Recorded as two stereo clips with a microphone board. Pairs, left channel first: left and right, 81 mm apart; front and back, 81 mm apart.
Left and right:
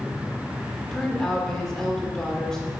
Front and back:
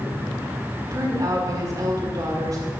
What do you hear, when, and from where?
0.9 s a woman speaking: 170° left, 1.8 m